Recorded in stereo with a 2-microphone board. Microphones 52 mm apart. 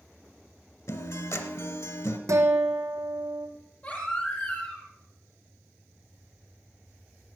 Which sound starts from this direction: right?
A guitar, at 2.3 s.